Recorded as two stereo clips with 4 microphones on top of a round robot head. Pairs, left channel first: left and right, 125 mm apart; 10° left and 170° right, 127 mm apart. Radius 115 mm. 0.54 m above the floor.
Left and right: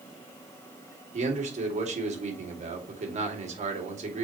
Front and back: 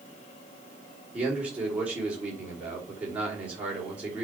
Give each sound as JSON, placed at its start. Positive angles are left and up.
{"t": 1.1, "sound": "a man speaking", "azimuth_deg": -90, "distance_m": 2.5}